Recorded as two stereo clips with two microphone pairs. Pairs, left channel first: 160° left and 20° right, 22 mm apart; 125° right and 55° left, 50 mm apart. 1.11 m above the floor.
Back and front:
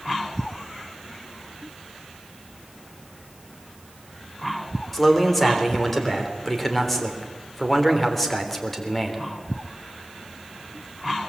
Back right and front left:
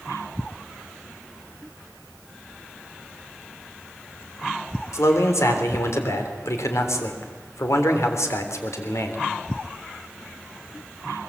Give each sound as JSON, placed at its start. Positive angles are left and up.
{"t": 4.9, "sound": "a man speaking", "azimuth_deg": -115, "distance_m": 3.5}